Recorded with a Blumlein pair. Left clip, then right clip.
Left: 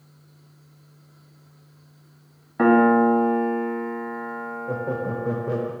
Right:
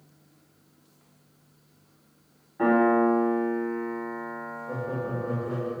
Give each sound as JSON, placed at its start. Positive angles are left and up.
{"t": 2.6, "sound": "a piano", "azimuth_deg": 55, "distance_m": 0.8}
{"t": 4.7, "sound": "laughter", "azimuth_deg": 35, "distance_m": 0.5}